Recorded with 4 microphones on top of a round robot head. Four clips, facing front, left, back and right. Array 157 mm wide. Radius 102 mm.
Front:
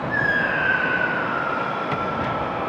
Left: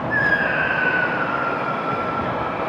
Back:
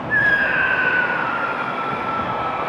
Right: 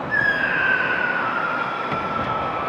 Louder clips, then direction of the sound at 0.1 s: Left 1 dB, back 5 dB; 160° right.